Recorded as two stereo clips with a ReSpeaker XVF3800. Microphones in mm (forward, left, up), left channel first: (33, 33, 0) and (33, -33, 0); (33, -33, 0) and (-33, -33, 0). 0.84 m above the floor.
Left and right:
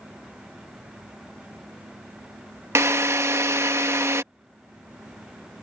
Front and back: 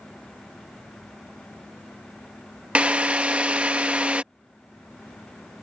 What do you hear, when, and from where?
2.8 s a drill: 115° right